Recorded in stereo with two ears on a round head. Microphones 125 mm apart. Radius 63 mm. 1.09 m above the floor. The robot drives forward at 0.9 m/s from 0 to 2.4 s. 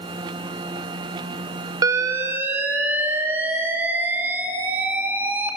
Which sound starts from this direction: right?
An alarm, at 1.8 s.